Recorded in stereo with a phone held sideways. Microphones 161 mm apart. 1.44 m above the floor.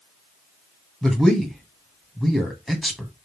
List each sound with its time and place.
1.0 s a man speaking: 5° left (ahead or behind), 1.7 m